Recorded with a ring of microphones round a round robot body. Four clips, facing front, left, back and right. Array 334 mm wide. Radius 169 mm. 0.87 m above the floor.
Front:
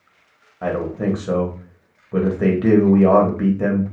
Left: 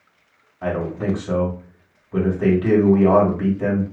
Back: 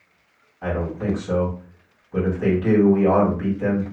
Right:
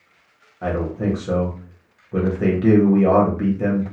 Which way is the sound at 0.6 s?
10° right.